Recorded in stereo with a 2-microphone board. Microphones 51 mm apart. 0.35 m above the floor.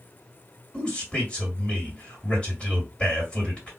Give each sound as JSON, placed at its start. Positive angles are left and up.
{"t": 0.7, "sound": "a man speaking", "side_deg": 20, "distance_m": 1.9}